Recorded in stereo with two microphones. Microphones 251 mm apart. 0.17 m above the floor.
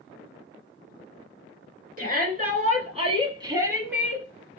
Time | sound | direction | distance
2.0 | a shout | 35° right (ahead or behind) | 1.9 m